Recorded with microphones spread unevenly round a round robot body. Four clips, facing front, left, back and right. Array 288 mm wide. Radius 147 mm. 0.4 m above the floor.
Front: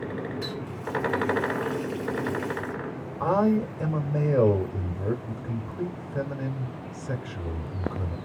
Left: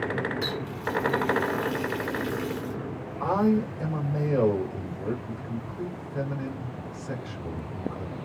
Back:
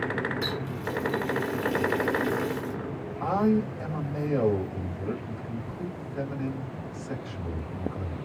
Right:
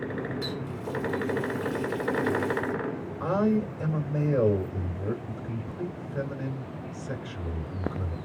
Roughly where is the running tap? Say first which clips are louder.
Left 2 dB, back 2 dB; behind left.